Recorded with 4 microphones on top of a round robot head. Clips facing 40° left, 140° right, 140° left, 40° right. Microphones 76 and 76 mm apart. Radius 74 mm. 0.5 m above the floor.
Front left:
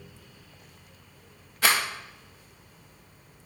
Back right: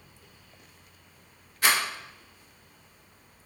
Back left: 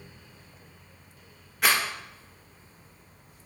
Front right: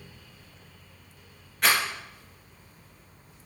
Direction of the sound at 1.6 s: 50° left.